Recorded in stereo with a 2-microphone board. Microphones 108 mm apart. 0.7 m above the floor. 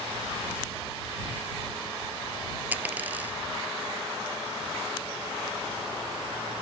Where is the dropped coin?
15° right (ahead or behind).